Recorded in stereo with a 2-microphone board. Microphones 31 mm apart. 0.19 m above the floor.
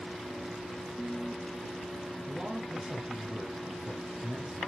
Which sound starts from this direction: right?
A man speaking, at 2.3 s.